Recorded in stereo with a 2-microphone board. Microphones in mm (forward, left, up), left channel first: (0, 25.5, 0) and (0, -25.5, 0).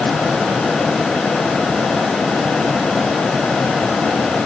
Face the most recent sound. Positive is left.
No sound to turn to.